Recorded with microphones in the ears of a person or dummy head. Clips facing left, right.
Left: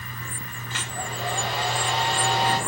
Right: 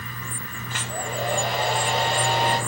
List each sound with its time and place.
0.7 s a hair dryer: 45° right (ahead or behind), 7 m